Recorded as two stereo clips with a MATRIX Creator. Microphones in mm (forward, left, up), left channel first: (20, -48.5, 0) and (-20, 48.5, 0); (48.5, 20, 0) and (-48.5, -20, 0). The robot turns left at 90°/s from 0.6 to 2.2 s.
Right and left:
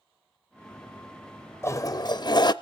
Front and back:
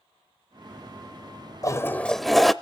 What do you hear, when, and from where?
1.6 s a toilet flushing: 15° right, 0.5 m; by 2.5 s 65° right, 0.5 m